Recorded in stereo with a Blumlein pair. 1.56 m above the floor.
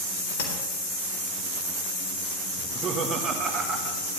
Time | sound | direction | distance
0.4 | tapping | 60° left | 3.5 m
2.6 | laughter | 25° right | 1.7 m